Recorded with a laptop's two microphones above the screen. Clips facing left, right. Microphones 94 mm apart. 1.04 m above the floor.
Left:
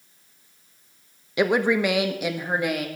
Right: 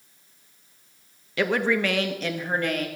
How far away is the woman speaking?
About 1.0 m.